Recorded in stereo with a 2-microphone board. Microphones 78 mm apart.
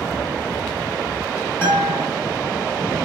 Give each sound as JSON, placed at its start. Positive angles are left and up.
{"t": 1.6, "sound": "a guitar", "side_deg": 30, "distance_m": 0.9}